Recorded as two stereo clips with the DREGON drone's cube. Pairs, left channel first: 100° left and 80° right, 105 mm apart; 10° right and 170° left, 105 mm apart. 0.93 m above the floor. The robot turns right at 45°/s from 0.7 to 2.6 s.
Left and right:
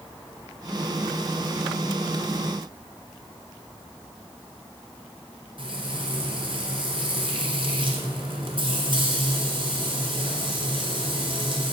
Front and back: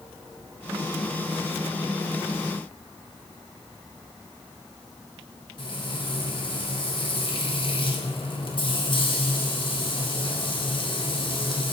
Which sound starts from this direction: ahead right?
Frying, at 5.6 s.